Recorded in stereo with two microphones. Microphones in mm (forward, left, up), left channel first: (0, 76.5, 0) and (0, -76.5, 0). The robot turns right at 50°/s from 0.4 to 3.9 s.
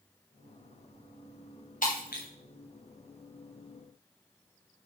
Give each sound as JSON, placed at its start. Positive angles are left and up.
{"t": 1.8, "sound": "breaking glass", "side_deg": 60, "distance_m": 5.0}